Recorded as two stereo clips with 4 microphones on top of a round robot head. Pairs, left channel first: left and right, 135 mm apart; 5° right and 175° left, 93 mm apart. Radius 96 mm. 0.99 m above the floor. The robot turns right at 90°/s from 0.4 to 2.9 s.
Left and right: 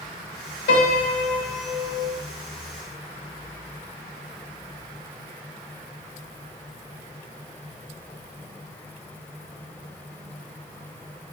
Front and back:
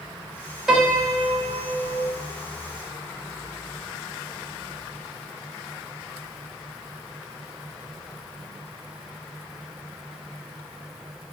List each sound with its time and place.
0.7 s a piano: 90° left, 1.1 m; by 2.1 s 135° right, 1.1 m